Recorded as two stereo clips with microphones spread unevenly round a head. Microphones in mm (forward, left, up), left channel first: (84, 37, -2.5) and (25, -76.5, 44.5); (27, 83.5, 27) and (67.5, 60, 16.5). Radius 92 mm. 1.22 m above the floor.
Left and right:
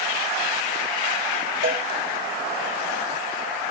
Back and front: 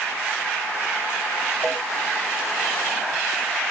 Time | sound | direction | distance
1.6 | a cowbell | 135° right | 7 m